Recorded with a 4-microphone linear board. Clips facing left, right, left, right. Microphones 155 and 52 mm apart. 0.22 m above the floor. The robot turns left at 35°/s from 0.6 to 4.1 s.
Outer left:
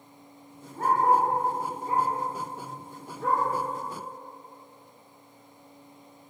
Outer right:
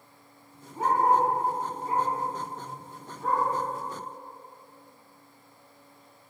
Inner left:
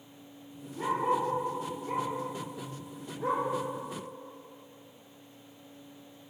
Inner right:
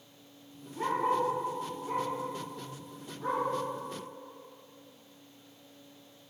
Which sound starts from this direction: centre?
A dog barking, at 0.8 s.